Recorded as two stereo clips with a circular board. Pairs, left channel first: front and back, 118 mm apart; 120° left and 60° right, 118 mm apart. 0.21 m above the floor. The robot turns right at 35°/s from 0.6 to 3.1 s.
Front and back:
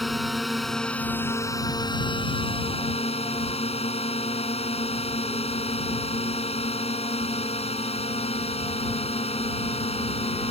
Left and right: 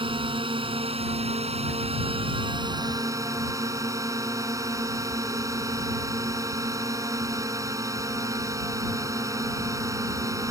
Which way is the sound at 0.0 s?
90° right.